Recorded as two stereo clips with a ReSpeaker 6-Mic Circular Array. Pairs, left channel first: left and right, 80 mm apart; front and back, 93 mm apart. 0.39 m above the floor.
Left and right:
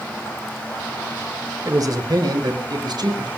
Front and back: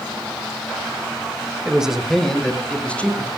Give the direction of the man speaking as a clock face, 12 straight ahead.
4 o'clock.